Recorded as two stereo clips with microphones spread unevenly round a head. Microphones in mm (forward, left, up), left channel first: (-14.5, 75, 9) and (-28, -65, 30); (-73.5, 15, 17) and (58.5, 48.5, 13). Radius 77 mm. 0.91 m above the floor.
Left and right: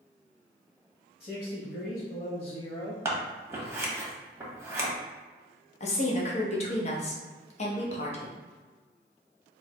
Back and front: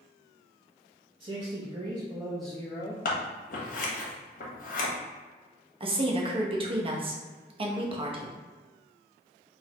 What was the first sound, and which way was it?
A man speaking, 45° left.